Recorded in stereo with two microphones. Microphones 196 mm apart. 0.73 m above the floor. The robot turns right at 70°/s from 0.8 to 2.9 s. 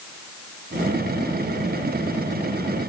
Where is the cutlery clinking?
No cutlery clinking in this recording.